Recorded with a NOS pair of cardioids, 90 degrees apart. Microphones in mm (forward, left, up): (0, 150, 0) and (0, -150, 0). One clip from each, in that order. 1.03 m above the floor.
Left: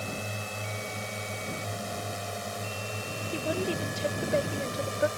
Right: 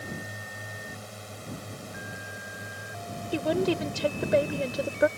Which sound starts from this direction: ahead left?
A drone, at 0.0 s.